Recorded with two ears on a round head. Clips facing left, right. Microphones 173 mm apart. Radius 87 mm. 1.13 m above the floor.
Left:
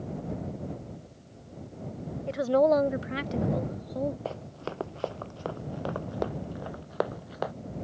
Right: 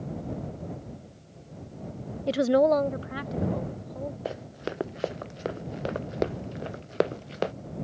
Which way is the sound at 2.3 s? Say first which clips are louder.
Right 2 dB; 50° right (ahead or behind).